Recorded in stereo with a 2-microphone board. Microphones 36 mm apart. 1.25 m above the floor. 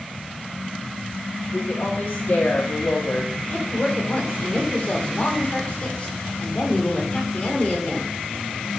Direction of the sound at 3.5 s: 40° left (ahead or behind).